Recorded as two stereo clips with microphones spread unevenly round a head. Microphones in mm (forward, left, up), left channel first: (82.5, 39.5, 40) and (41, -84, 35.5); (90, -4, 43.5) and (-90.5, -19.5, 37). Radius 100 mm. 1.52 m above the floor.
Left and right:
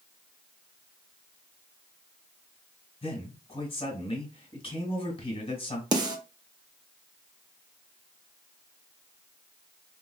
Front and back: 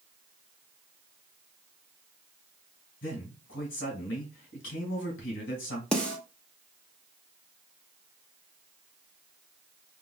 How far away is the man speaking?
About 2 m.